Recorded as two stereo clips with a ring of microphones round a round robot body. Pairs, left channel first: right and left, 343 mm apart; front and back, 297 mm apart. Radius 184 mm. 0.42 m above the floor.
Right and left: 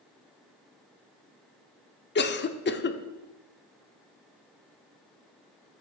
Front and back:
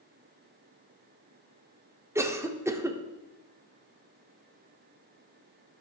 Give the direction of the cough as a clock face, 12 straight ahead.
4 o'clock.